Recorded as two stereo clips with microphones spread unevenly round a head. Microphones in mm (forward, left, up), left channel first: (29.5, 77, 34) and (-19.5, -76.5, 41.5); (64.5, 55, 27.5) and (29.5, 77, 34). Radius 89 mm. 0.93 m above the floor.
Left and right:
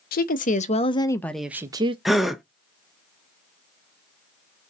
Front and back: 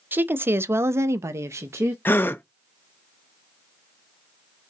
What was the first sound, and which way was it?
A woman speaking, 105° left.